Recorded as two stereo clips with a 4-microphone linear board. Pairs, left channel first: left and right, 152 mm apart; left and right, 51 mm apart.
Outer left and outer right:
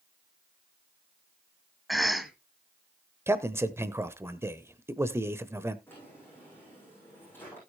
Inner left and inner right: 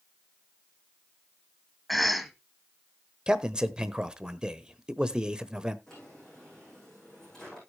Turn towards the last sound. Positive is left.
turn(degrees=15)  # may be behind; listen again after turning